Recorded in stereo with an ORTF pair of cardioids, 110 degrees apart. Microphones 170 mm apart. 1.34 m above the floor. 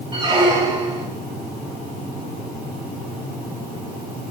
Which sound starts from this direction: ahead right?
A squeak, at 0.1 s.